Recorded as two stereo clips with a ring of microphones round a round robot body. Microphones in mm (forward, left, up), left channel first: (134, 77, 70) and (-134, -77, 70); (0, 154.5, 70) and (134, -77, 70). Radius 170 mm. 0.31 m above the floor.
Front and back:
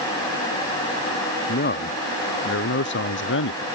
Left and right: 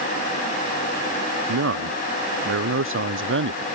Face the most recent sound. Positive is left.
turn(degrees=-20)